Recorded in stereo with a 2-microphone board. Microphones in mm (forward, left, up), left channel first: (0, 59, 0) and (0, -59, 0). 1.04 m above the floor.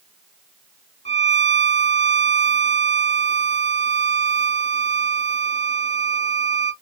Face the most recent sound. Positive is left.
turn(degrees=70)  # may be behind; listen again after turning